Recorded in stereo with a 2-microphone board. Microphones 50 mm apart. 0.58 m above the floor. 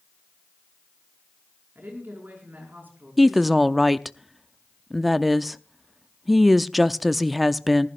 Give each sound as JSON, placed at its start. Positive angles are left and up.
{"t": 1.8, "sound": "a woman speaking", "side_deg": -45, "distance_m": 7.0}
{"t": 3.2, "sound": "a woman speaking", "side_deg": 0, "distance_m": 0.6}